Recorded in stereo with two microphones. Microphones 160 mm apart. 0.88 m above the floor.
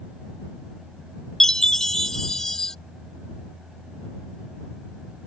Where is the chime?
5° left (ahead or behind).